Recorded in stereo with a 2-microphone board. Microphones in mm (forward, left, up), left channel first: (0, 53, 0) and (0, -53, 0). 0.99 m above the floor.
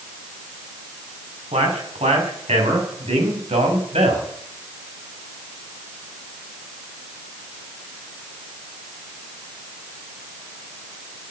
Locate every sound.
1.5 s a man speaking: 85° right, 7 m